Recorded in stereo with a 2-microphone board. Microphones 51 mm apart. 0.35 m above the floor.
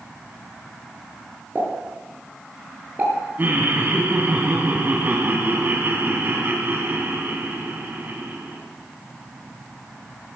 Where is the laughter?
40° right (ahead or behind), 3 m.